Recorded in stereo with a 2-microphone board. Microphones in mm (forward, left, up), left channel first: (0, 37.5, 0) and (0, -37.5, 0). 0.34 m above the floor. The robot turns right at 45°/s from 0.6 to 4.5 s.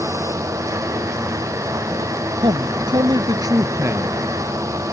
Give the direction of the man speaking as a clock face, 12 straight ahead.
3 o'clock.